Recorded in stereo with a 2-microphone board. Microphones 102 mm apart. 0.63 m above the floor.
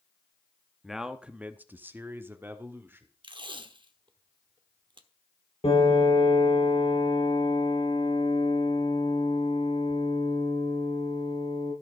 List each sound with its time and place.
0.8 s a man speaking: centre (ahead or behind), 0.9 m; by 3.1 s 20° right (ahead or behind), 2 m
3.2 s tape being pulled: 50° right (ahead or behind), 1.0 m
5.6 s a piano: 70° left (ahead or behind), 6 m